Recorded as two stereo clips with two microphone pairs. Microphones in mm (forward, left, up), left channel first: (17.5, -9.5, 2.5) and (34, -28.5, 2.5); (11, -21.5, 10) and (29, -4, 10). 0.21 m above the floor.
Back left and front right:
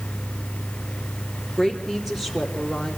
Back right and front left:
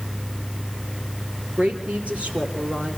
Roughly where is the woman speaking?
Ahead left.